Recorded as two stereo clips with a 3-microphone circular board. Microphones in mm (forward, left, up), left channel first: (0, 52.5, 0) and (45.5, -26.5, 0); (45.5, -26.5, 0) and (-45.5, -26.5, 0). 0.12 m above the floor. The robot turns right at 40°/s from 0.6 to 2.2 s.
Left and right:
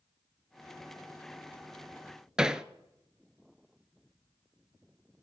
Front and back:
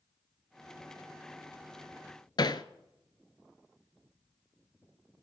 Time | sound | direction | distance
2.4 | hammering | 20° left | 0.6 m